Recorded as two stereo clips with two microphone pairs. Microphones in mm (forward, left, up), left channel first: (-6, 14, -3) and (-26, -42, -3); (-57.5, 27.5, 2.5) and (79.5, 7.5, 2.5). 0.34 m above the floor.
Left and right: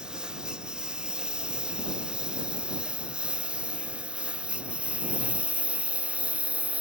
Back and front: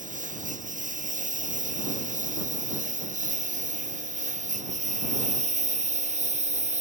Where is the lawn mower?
35° right; by 6.8 s 40° right.